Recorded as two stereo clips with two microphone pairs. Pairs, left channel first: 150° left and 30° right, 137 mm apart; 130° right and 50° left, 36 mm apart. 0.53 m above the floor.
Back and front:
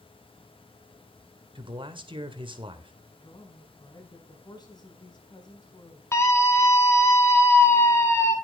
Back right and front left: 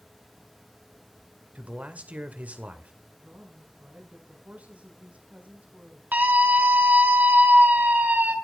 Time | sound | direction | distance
1.6 | a man speaking | 15° left | 2 m
3.2 | a woman speaking | 95° left | 5.5 m
6.1 | a scream | 80° left | 5.5 m